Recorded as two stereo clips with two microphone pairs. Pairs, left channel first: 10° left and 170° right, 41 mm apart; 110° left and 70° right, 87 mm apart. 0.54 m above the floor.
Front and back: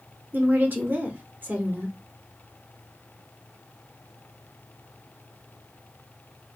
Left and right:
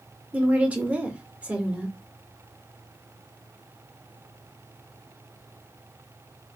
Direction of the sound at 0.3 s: 145° right.